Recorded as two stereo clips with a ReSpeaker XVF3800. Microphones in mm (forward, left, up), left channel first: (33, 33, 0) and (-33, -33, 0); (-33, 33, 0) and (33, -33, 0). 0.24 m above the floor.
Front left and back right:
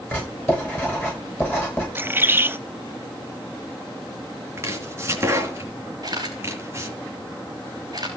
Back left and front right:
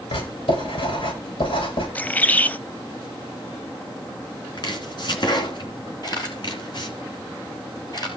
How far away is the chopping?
About 3 m.